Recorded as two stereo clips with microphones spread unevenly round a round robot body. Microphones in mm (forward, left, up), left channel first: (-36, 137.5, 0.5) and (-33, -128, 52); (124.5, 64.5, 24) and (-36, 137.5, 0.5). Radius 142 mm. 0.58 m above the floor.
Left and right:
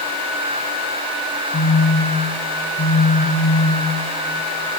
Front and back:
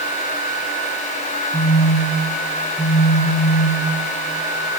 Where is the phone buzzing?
30° left, 6 m.